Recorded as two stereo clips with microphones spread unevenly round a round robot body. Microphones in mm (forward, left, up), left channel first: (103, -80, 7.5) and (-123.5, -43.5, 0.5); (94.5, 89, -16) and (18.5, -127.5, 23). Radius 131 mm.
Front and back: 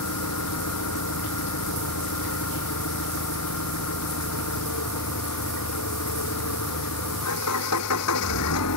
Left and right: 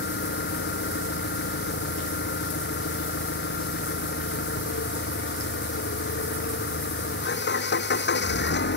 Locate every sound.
0.0 s an engine running: 30° left